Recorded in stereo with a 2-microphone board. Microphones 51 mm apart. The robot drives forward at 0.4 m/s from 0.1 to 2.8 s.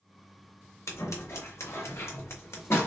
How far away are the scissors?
About 1.7 m.